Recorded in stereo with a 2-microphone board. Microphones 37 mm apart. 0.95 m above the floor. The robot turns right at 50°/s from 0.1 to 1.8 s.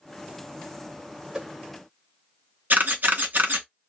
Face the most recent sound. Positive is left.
turn(degrees=-60)  # may be behind; listen again after turning